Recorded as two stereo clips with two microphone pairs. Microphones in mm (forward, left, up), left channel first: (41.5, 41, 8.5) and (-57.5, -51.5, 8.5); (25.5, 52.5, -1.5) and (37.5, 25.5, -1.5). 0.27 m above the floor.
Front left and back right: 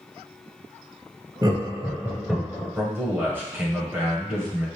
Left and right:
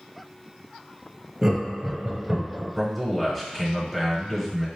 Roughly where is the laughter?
Behind right.